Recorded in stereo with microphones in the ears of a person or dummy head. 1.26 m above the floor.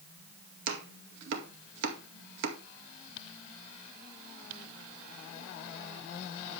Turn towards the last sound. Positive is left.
turn(degrees=-65)  # may be behind; listen again after turning